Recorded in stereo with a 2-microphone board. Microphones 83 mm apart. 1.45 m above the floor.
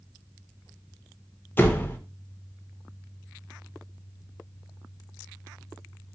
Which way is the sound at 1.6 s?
25° left (ahead or behind).